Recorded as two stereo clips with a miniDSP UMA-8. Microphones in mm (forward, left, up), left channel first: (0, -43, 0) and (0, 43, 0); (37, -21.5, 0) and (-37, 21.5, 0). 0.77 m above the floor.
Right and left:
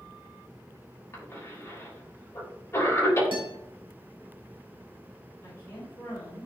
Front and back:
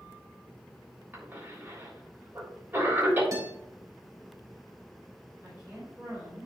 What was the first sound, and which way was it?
A cough, 145° right.